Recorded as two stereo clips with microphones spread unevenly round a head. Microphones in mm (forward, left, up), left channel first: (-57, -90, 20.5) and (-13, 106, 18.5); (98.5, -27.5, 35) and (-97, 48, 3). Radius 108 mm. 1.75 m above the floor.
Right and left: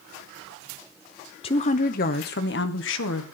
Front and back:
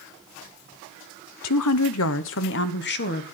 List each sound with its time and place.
1.4 s a woman speaking: 35° right, 0.9 m; by 3.2 s 65° right, 1.6 m